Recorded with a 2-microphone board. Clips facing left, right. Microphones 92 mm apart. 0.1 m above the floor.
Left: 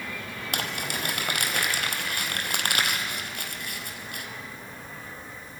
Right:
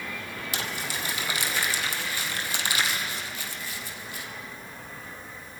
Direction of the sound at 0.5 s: 60° left (ahead or behind).